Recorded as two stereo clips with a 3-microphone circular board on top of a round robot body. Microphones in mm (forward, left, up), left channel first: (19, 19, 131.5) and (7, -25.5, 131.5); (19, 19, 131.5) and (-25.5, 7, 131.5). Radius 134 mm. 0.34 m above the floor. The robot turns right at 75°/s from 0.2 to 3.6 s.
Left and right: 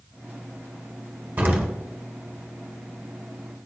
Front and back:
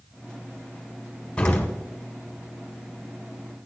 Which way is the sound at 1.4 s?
55° right.